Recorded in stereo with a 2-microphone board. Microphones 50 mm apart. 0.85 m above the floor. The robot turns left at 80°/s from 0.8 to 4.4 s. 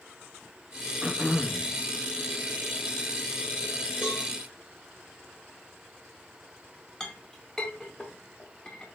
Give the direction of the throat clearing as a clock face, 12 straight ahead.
5 o'clock.